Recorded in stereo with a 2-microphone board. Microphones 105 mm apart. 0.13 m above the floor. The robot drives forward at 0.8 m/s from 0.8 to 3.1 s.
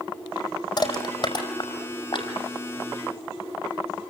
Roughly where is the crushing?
Left.